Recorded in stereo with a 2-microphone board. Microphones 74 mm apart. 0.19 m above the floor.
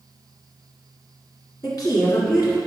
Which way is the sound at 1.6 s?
60° left (ahead or behind).